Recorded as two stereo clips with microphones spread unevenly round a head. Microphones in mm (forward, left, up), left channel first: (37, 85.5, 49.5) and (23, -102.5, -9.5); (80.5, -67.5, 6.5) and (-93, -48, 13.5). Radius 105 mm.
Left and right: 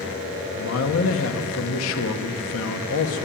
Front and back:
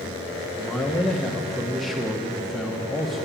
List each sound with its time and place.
0.6 s a man speaking: 85° left, 1.1 m